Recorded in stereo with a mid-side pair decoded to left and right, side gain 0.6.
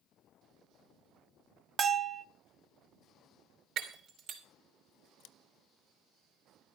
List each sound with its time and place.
1.8 s a bell: 40° right, 0.8 m
3.8 s breaking glass: 60° right, 3.5 m
5.2 s scissors: 70° left, 0.6 m